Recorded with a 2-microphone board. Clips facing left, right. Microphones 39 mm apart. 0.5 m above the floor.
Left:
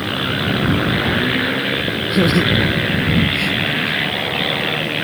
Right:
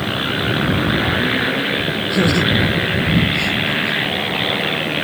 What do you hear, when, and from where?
2.1 s laughter: 15° left (ahead or behind); by 4.0 s 5° left (ahead or behind)